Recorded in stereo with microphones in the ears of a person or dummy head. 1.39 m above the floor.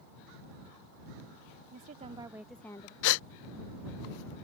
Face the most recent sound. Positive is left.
turn(degrees=65)  # may be behind; listen again after turning